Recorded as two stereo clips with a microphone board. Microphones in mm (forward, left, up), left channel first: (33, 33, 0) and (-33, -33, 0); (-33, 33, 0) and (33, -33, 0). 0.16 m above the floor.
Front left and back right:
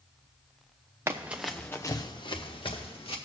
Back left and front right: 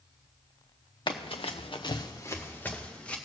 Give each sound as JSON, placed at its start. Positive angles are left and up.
{"t": 1.1, "sound": "running footsteps", "azimuth_deg": 165, "distance_m": 1.1}